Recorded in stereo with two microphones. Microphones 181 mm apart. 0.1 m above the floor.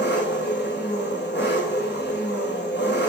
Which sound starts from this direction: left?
An engine running, at 0.0 s.